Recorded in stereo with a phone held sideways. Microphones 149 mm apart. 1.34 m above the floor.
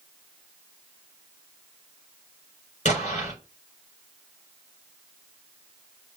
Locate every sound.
2.9 s an explosion: 55° left (ahead or behind), 4.5 m